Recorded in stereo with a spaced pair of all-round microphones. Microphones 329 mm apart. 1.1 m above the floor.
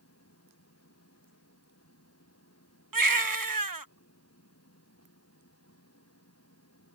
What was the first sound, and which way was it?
An engine running, 45° left (ahead or behind).